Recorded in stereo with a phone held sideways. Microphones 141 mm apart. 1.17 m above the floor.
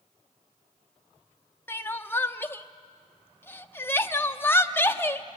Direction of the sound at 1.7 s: 15° left (ahead or behind).